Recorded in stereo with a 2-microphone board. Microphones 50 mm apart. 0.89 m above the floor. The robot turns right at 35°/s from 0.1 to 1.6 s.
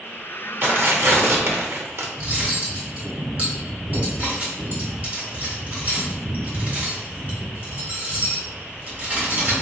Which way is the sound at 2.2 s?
35° right (ahead or behind).